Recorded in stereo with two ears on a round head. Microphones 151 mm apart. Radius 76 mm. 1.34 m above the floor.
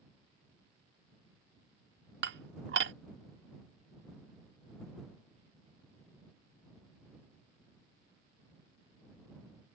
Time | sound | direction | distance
2.2 | dishes clattering | 70° right (ahead or behind) | ?